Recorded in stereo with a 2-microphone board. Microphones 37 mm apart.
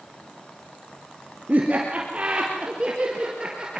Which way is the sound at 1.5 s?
40° right (ahead or behind).